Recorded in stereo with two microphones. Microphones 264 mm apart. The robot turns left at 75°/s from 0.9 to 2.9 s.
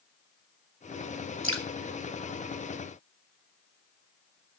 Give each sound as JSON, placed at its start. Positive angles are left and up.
{"t": 1.4, "sound": "dripping", "side_deg": -50, "distance_m": 2.0}